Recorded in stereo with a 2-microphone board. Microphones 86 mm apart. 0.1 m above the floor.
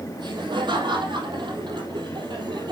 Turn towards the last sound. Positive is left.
turn(degrees=-60)  # may be behind; listen again after turning